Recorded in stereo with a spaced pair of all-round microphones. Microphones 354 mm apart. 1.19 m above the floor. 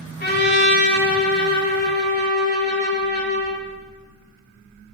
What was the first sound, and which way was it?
A trumpet, 30° left (ahead or behind).